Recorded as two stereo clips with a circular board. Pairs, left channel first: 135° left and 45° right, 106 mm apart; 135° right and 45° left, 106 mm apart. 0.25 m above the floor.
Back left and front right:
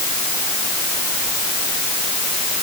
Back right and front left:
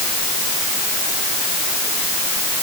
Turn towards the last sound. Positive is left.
No sound to turn to.